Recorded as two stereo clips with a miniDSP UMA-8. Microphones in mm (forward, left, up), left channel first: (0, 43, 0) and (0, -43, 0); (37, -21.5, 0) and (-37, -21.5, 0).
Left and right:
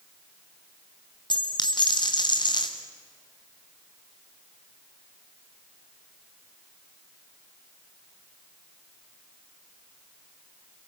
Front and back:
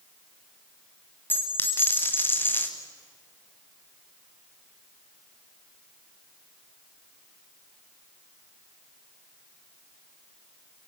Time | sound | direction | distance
1.3 | a dropped coin | 60° left | 3 m